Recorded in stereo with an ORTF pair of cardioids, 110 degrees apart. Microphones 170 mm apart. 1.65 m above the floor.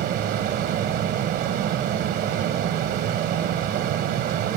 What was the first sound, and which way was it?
A fan, 70° right.